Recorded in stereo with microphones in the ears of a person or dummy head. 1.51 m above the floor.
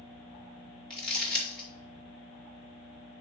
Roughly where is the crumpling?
Centre.